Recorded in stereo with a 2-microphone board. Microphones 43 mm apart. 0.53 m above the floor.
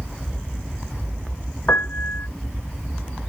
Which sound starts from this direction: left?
A piano, at 1.7 s.